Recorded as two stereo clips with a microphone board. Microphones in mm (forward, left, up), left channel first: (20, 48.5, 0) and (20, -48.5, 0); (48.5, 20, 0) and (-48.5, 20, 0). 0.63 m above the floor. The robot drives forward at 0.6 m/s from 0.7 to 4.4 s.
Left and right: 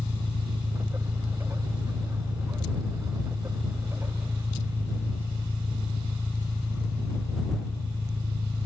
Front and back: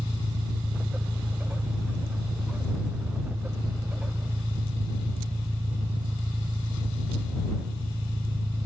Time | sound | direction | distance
0.0 | an engine running | 145° right | ?